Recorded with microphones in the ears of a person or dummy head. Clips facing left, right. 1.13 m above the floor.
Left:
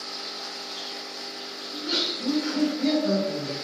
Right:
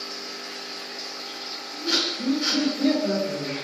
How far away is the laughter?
About 1.5 m.